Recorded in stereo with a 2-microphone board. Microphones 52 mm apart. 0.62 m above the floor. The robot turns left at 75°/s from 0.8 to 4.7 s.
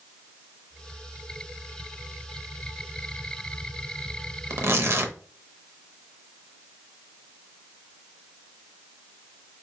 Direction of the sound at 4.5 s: 65° right (ahead or behind).